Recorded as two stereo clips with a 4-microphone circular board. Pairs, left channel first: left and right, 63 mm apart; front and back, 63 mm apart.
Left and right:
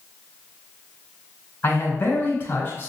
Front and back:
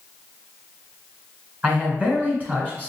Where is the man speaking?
130° left, 1.8 m.